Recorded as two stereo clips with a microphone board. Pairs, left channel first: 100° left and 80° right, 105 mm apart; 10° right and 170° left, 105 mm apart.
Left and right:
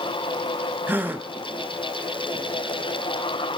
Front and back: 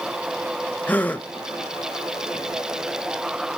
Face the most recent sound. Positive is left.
turn(degrees=-60)